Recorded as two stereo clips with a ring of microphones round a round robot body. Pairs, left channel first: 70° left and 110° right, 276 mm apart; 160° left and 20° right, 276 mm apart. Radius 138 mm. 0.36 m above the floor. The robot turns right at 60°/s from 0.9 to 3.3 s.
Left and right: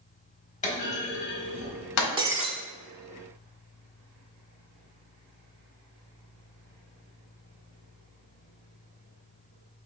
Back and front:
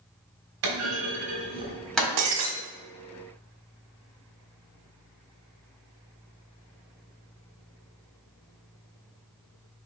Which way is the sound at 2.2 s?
40° right.